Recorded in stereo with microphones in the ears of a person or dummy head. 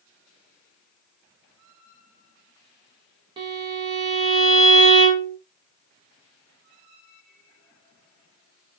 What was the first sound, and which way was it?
A violin, 30° right (ahead or behind).